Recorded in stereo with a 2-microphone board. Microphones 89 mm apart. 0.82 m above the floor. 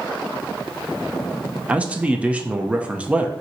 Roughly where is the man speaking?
Centre.